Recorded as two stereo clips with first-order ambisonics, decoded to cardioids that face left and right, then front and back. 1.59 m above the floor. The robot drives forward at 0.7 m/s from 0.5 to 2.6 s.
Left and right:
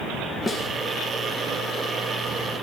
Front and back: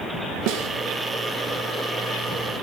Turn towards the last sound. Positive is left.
turn(degrees=180)